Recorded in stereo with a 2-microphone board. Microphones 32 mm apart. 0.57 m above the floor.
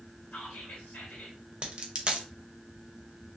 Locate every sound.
0.3 s whispering: 55° left (ahead or behind), 1.4 m
1.6 s a dropped coin: 35° right (ahead or behind), 0.6 m